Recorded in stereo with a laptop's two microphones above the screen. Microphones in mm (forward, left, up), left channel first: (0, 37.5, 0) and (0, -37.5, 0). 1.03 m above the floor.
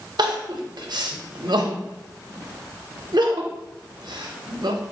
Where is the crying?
75° right (ahead or behind), 0.6 m.